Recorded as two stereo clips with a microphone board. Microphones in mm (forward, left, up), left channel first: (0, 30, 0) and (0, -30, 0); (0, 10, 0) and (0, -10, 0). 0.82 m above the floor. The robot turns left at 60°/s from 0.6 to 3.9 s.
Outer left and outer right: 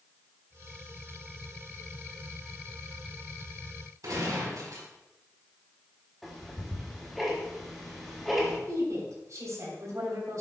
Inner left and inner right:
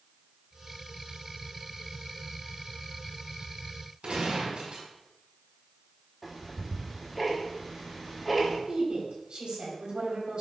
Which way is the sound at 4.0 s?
80° right.